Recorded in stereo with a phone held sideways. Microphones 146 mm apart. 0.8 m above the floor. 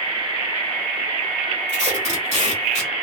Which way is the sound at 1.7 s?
50° right (ahead or behind).